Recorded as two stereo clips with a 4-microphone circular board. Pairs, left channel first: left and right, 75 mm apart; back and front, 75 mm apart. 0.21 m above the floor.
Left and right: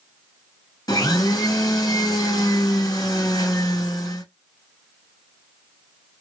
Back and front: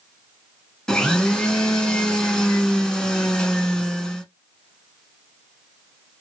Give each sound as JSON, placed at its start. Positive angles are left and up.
{"t": 0.9, "sound": "a blender", "azimuth_deg": 100, "distance_m": 0.9}